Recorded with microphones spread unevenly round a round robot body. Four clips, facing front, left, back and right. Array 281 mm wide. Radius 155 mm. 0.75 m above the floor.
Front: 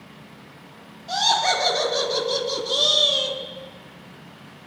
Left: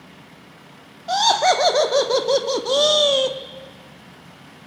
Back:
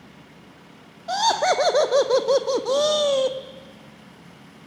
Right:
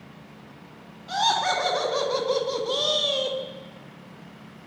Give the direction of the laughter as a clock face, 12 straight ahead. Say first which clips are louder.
Left 6 dB, back 2 dB; 6 o'clock.